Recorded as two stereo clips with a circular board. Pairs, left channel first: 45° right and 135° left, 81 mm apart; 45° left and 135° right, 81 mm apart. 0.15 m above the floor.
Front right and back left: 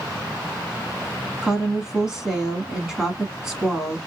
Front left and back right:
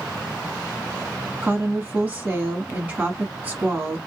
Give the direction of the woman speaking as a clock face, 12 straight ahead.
5 o'clock.